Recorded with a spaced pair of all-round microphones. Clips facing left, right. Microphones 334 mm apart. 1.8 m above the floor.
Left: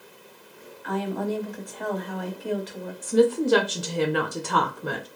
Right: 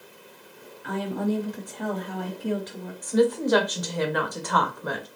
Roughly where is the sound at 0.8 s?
Right.